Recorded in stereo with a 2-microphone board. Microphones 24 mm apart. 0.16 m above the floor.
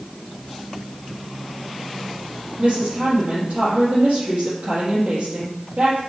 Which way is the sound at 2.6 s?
60° right (ahead or behind).